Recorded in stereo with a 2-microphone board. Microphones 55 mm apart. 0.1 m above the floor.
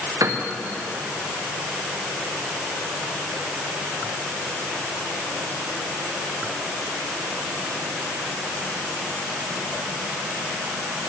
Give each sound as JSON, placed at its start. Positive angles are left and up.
{"t": 0.2, "sound": "a piano", "side_deg": -75, "distance_m": 2.0}